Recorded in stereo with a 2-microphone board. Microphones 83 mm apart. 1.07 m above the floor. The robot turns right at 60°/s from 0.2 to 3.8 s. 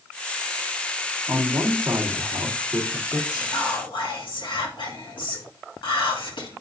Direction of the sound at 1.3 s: 120° right.